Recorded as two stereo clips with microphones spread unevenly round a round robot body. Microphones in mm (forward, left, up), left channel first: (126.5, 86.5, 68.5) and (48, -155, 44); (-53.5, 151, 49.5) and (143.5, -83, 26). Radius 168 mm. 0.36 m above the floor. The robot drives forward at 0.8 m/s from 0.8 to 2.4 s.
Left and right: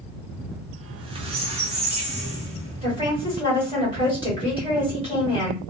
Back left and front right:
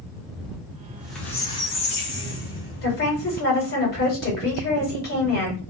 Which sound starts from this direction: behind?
A woman speaking, at 2.8 s.